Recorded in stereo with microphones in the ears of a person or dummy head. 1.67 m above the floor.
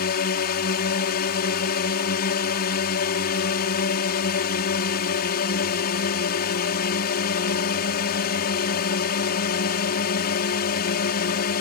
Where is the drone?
55° left (ahead or behind).